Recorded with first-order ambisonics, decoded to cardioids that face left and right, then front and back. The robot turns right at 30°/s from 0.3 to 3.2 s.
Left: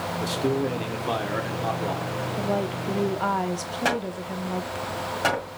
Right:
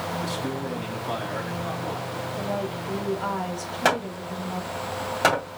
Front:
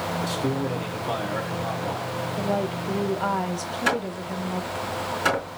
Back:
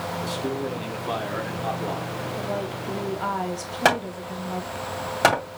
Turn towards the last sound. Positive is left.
turn(degrees=-160)